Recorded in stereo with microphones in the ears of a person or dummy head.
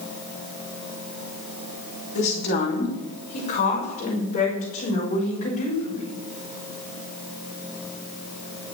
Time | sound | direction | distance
2.1 | a woman speaking | 50° left (ahead or behind) | 4 m